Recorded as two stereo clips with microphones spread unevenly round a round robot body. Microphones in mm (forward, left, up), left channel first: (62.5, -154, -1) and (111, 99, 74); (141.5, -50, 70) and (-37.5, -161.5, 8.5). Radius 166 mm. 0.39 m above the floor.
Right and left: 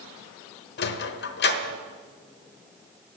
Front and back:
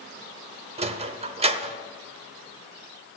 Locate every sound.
0.8 s a sliding door: 105° right, 0.9 m